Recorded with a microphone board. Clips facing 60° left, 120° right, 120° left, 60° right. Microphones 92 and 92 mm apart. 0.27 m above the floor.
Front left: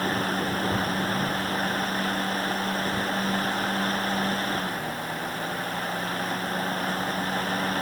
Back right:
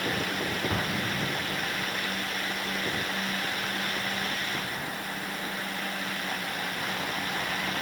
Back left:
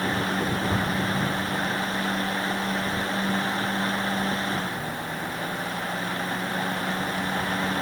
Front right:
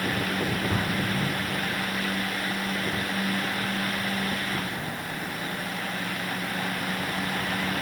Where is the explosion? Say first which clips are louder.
Front left 4 dB, back left 2 dB; 160° right, 8 m.